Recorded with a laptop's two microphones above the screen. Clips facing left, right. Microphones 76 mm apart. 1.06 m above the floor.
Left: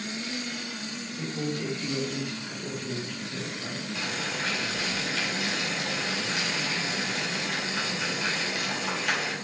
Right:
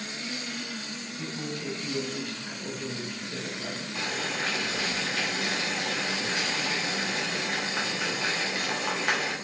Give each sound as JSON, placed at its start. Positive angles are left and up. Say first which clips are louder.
{"t": 1.2, "sound": "a man speaking", "louder": "left 5 dB", "side_deg": 55, "distance_m": 0.8}
{"t": 4.0, "sound": "boiling", "louder": "right 2 dB", "side_deg": -35, "distance_m": 0.6}